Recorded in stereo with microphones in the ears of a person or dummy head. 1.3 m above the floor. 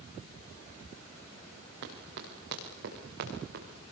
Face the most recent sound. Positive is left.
turn(degrees=-55)  # may be behind; listen again after turning